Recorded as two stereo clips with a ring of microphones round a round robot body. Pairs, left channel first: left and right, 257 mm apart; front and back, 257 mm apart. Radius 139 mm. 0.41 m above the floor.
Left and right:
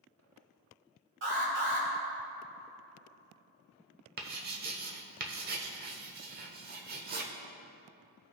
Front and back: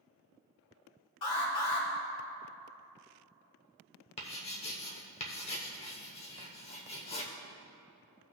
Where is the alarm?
45° right, 2.5 m.